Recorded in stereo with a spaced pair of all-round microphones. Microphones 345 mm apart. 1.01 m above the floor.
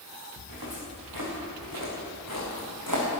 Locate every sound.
0.4 s footsteps: 80° right, 7 m; by 3.1 s 60° right (ahead or behind), 5 m